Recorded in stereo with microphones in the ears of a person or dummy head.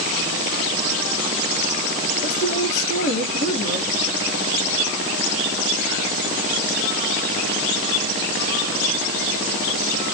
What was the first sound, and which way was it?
A woman speaking, 80° left.